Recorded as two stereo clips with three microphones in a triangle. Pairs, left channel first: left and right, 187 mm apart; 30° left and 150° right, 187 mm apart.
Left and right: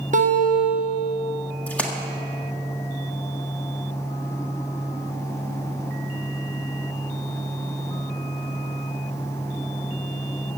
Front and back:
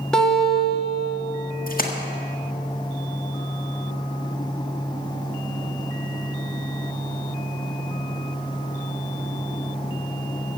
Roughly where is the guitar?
Ahead right.